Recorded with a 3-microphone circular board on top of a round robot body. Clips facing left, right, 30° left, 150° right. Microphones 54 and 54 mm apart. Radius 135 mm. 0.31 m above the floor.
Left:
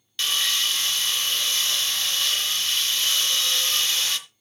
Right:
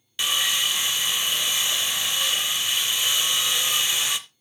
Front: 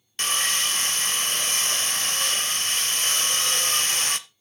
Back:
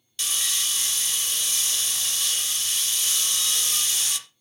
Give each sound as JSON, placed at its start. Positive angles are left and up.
{"t": 0.2, "sound": "sawing", "azimuth_deg": -15, "distance_m": 0.8}